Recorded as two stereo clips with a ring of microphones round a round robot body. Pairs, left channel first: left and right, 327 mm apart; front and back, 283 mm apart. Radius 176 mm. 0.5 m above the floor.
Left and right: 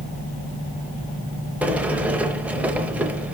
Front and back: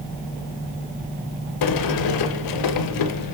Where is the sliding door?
5° right, 0.7 m.